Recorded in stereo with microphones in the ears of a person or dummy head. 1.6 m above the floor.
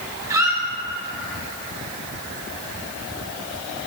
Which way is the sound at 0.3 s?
15° right (ahead or behind).